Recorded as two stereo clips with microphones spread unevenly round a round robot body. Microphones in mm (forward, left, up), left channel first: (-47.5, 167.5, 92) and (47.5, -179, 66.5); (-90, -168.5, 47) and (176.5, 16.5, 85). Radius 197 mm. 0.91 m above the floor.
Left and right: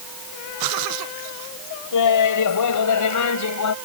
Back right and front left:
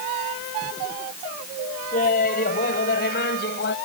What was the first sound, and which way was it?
Laughter, 145° left.